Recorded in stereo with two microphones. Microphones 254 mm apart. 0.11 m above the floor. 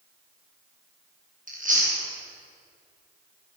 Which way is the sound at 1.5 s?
35° right (ahead or behind).